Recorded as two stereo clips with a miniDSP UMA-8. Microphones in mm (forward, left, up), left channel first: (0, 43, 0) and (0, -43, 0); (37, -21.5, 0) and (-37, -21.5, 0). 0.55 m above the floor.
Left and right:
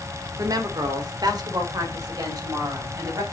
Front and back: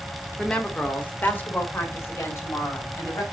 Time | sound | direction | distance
0.4 | a woman speaking | 75° right | 1.4 m